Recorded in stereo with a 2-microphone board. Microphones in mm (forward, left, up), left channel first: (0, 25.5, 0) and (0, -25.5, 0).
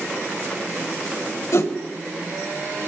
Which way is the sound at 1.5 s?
70° left (ahead or behind).